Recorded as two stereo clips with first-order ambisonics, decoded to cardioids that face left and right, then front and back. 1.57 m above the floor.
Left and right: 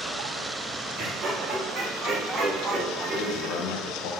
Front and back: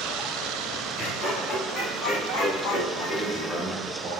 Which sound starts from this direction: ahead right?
Laughter, at 1.0 s.